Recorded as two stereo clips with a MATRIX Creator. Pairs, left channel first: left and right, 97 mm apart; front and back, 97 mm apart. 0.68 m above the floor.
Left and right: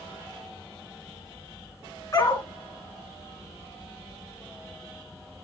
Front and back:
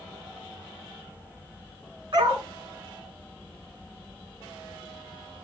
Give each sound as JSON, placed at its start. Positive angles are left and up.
{"t": 2.1, "sound": "a dog barking", "azimuth_deg": 140, "distance_m": 3.0}